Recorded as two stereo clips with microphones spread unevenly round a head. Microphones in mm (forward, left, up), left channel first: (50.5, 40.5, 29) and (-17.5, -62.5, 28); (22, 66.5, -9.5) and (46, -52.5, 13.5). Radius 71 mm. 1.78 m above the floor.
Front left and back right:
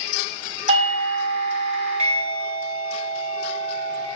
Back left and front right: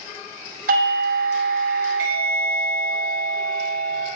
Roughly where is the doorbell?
Right.